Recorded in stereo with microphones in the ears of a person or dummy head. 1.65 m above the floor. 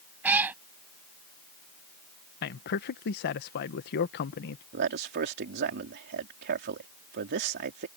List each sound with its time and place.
0.2 s a cat meowing: 5° right (ahead or behind)
2.4 s a man speaking: 45° left (ahead or behind)
4.7 s a man speaking: 50° right (ahead or behind)